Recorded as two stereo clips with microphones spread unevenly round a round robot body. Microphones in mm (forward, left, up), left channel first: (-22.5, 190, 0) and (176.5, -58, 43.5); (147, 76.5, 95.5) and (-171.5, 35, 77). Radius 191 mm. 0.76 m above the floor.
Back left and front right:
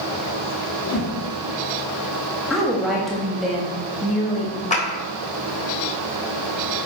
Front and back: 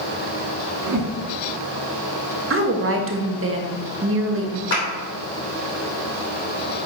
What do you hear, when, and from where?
0.9 s a whoosh: 165° left, 1.6 m
2.5 s a woman speaking: 150° right, 1.3 m
4.7 s a clap: 60° left, 3.5 m